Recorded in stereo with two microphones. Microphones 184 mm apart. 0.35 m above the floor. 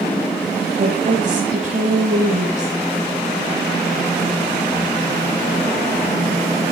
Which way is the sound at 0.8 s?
45° right (ahead or behind).